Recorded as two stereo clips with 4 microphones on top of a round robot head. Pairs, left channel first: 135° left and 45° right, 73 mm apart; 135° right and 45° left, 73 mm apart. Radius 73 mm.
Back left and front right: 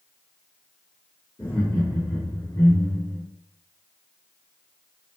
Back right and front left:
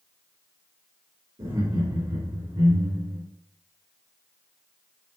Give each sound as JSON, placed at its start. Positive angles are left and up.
{"t": 1.4, "sound": "laughter", "azimuth_deg": 80, "distance_m": 3.5}